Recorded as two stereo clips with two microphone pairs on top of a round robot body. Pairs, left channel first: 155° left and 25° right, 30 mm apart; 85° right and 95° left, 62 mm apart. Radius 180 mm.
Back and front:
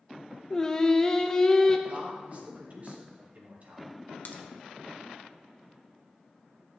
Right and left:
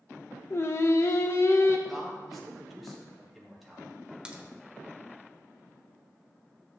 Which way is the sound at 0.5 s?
135° right.